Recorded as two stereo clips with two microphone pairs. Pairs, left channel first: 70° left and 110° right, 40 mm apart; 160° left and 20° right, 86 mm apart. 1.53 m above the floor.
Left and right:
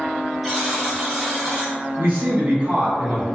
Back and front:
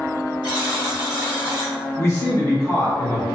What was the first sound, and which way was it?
A buzzer, 155° left.